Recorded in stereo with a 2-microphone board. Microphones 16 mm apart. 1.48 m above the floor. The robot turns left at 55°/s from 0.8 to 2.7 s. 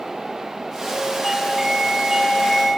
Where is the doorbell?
Straight ahead, 2 m; by 2.7 s 80° right, 2 m.